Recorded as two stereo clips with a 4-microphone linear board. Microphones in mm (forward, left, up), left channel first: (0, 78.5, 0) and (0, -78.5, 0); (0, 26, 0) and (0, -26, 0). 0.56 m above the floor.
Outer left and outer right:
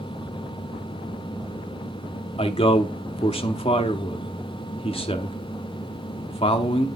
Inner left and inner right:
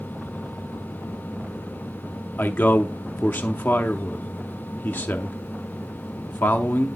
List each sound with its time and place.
2.4 s a man speaking: 35° left (ahead or behind), 0.7 m